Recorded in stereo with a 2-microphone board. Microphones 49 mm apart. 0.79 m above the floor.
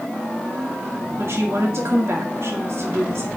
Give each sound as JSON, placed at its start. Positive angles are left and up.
{"t": 1.2, "sound": "a woman speaking", "side_deg": -65, "distance_m": 2.0}